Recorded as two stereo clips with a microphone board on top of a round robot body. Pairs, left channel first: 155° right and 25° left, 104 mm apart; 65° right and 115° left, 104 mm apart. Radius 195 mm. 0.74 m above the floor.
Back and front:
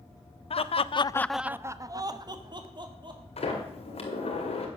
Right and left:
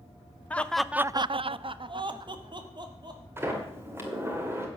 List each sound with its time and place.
0.5 s laughter: 145° right, 0.8 m; by 3.2 s 65° left, 2 m
3.4 s a sliding door: straight behind, 2 m